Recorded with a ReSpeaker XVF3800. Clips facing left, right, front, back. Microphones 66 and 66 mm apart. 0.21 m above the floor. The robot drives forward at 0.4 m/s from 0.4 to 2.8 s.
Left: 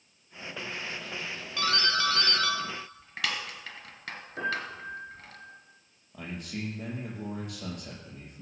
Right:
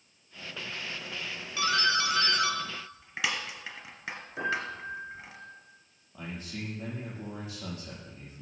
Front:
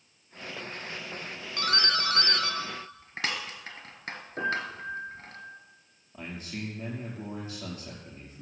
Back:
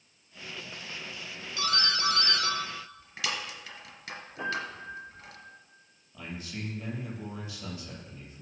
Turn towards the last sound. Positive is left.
turn(degrees=55)